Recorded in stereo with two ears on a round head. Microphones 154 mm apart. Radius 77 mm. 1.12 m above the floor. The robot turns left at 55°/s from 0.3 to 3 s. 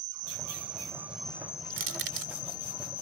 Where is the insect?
130° right; by 3.0 s 85° left.